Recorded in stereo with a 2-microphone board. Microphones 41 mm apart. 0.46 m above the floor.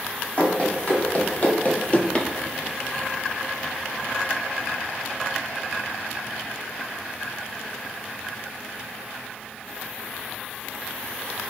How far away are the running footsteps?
About 1.4 m.